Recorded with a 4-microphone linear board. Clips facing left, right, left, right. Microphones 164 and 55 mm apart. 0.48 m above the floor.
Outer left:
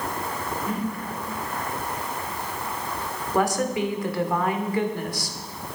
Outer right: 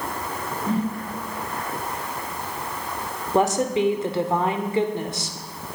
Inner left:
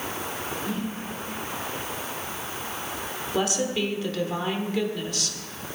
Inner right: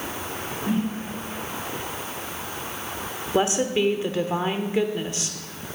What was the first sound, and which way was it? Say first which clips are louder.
A whoosh: outer right 6 dB, inner right 9 dB; 30° right (ahead or behind).